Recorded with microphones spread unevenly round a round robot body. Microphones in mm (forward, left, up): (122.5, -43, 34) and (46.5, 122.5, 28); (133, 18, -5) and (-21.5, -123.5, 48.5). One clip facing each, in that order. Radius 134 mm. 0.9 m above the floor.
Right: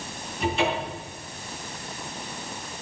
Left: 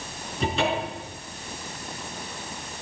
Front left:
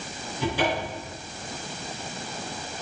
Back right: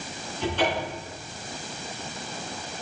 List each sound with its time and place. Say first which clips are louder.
0.4 s a cupboard door: even, even; 130° left, 5 m